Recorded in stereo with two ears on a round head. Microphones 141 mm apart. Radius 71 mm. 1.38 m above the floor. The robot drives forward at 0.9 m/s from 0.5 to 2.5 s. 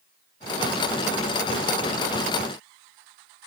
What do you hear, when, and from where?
Only background noise.